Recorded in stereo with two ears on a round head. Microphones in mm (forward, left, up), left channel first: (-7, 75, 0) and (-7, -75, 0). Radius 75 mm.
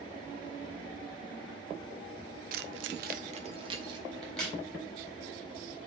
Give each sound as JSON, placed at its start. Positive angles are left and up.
{"t": 2.5, "sound": "keys jangling", "side_deg": -55, "distance_m": 0.6}
{"t": 4.2, "sound": "a crack", "side_deg": 5, "distance_m": 3.5}